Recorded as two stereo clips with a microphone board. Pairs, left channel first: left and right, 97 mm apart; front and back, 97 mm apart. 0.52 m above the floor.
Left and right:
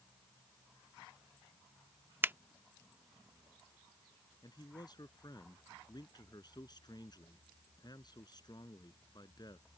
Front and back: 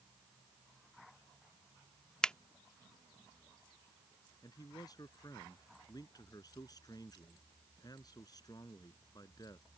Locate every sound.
2.2 s a finger snap: 70° right
4.4 s a man speaking: 45° left